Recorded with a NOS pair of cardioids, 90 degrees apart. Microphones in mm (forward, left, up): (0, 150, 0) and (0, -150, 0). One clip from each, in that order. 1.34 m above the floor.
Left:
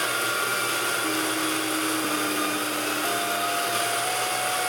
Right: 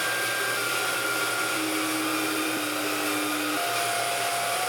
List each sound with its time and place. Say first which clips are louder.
0.0 s a machine running: left 1 dB; 50° left, 4 m